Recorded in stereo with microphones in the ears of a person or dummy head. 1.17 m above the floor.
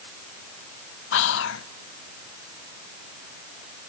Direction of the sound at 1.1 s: 65° left (ahead or behind).